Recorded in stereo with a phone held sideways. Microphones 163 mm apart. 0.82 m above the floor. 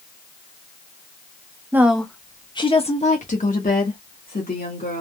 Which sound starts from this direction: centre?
A woman speaking, at 1.7 s.